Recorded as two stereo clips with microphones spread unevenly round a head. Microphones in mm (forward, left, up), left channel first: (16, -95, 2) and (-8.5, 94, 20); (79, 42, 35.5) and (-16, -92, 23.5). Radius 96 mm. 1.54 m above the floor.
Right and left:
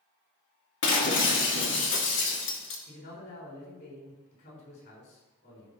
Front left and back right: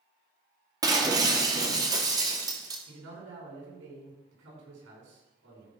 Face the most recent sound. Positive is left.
turn(degrees=-125)